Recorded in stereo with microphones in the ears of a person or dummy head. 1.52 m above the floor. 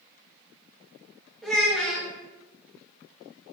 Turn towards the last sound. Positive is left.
turn(degrees=5)  # may be behind; listen again after turning